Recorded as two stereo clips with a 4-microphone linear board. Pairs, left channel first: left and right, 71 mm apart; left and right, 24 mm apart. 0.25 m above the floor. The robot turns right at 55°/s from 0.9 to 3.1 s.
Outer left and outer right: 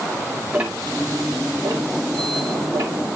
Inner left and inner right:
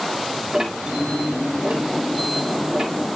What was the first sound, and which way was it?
Ticking, 15° right (ahead or behind).